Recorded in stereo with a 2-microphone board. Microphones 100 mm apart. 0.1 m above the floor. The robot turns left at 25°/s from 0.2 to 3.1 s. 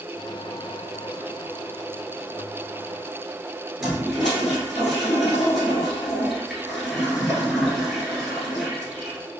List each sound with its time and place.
3.8 s a toilet flushing: centre (ahead or behind), 1.5 m